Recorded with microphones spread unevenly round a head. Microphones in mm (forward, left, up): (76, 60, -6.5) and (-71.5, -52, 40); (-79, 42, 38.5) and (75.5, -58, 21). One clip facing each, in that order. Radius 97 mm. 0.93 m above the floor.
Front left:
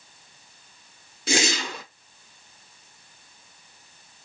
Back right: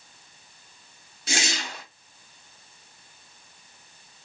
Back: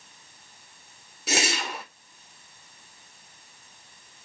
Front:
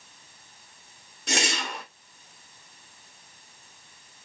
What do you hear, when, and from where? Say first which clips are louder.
1.3 s a whoosh: front left 6 dB, back 1 dB; 60° left, 0.5 m